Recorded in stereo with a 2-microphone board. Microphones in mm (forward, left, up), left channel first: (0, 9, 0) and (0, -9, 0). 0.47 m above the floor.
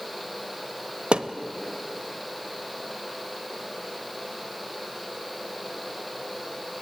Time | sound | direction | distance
1.1 | a thud | 60° right (ahead or behind) | 0.9 m